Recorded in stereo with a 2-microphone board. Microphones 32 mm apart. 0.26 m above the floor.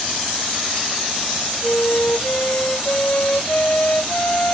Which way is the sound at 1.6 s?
55° left (ahead or behind).